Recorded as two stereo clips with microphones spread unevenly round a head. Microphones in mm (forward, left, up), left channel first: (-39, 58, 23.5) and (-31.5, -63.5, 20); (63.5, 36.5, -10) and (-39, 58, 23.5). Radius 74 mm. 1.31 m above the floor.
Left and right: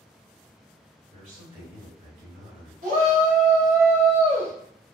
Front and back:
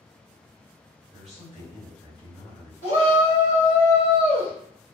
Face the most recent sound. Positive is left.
turn(degrees=-45)